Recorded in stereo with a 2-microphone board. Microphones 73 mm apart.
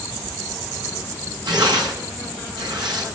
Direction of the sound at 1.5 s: 85° right.